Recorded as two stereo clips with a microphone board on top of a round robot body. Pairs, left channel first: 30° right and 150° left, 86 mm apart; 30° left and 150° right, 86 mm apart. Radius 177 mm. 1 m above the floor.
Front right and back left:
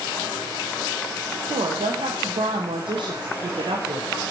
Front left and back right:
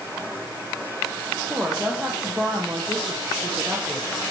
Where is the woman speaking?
125° left, 1.1 m.